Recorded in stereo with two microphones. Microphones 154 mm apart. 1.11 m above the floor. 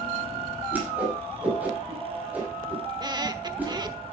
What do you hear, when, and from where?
0.7 s a whoosh: 10° right (ahead or behind), 5.5 m
2.9 s a squeak: 30° right (ahead or behind), 1.1 m